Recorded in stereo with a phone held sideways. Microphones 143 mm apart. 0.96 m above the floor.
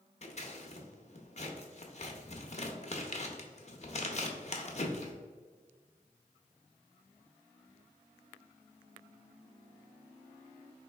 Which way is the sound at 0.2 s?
45° left (ahead or behind).